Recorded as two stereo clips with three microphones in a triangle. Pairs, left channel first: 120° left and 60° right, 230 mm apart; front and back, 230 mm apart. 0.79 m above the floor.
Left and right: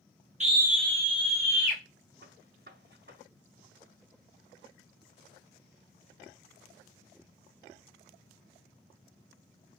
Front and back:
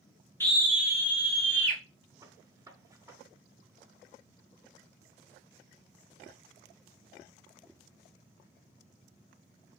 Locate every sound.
0.4 s a scream: 70° right, 0.6 m; by 1.8 s 175° left, 1.7 m
2.2 s a gunshot: 105° right, 1.0 m